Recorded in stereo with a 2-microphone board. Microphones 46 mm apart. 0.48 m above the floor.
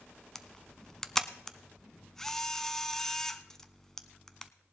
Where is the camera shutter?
10° left (ahead or behind), 0.7 m.